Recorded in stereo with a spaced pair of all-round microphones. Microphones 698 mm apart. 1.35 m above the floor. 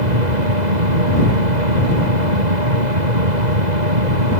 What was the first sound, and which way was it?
A machine running, 75° right (ahead or behind).